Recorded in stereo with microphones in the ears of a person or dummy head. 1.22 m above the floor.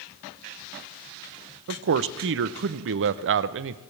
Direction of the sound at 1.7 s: 60° right (ahead or behind).